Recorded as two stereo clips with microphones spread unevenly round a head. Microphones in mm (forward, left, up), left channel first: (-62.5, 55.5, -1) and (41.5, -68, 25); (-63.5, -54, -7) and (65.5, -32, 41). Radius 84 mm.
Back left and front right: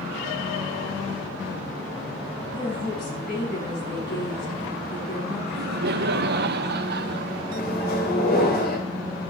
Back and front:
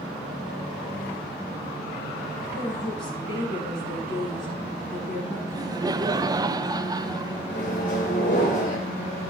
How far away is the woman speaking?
About 8.5 m.